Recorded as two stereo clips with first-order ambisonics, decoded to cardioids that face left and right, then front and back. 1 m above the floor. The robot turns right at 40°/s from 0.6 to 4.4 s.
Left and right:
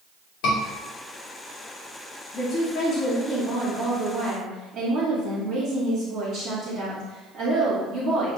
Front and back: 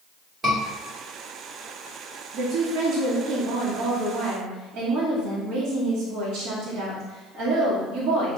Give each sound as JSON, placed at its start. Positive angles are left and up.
{"t": 0.4, "sound": "a scream", "azimuth_deg": 110, "distance_m": 2.5}
{"t": 2.3, "sound": "a woman speaking", "azimuth_deg": 155, "distance_m": 1.8}